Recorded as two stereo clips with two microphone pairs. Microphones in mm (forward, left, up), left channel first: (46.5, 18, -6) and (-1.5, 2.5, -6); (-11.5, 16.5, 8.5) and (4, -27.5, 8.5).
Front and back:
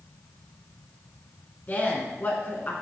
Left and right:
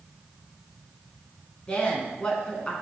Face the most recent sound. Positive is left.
turn(degrees=50)